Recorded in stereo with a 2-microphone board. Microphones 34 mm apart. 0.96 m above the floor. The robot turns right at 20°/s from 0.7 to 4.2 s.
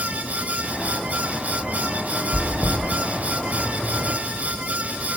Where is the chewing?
70° left (ahead or behind), 1.7 m; by 2.8 s 80° left, 1.7 m.